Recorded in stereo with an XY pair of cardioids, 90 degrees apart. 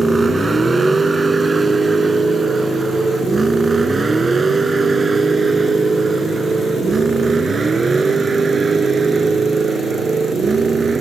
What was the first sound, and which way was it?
A vehicle, 25° right.